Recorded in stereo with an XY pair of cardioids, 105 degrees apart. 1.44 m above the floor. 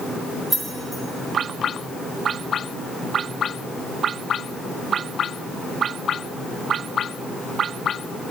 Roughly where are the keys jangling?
Ahead.